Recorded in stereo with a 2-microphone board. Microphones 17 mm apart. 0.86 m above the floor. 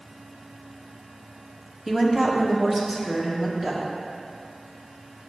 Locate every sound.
1.9 s a woman speaking: 30° right (ahead or behind), 0.9 m; by 3.8 s 35° right (ahead or behind), 2.5 m